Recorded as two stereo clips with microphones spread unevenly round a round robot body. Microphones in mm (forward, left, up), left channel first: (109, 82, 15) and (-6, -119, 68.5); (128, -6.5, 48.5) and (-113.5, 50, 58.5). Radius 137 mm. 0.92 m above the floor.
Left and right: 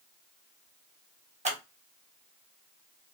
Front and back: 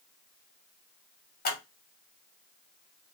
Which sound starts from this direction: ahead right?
Scissors, at 1.4 s.